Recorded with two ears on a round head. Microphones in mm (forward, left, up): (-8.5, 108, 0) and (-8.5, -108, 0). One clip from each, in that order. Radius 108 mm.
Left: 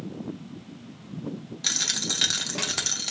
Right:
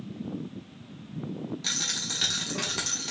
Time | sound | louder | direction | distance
1.6 | a dropped coin | left 4 dB | 25° left (ahead or behind) | 0.7 m